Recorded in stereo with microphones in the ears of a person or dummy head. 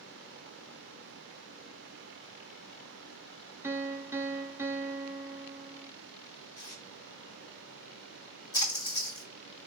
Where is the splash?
25° left (ahead or behind), 1.8 m.